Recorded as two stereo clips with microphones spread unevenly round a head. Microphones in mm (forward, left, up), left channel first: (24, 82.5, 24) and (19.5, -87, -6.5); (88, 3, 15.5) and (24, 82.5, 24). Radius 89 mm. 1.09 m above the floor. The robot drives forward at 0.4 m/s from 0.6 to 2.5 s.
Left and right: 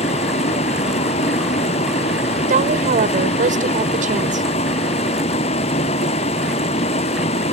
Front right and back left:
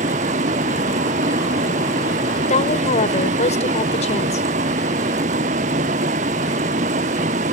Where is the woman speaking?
45° right.